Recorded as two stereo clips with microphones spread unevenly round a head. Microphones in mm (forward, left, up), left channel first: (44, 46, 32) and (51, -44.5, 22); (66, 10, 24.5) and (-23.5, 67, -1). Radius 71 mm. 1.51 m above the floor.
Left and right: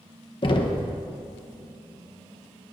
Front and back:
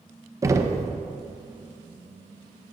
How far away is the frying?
I don't hear frying.